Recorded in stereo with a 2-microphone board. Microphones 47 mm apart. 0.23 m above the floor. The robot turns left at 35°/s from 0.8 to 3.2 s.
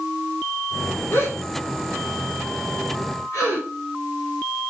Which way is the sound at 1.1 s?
45° left (ahead or behind).